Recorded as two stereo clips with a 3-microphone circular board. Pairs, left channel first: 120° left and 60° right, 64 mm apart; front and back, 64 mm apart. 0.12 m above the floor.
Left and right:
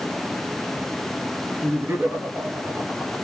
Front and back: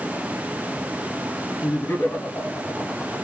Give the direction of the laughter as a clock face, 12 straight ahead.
1 o'clock.